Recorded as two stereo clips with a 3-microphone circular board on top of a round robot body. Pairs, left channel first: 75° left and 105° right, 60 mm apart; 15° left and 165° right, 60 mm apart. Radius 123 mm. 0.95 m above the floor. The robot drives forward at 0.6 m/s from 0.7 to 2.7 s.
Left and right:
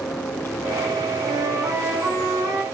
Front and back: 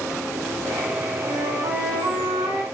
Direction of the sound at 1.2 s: 135° right.